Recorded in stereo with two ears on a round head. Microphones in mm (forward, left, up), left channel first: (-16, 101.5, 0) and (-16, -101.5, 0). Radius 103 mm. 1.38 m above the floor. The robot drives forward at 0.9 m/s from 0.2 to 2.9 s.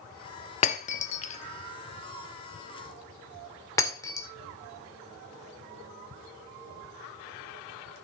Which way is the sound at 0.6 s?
30° left (ahead or behind).